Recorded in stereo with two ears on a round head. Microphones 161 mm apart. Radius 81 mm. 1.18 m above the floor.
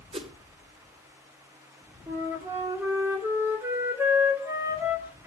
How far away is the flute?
About 3 m.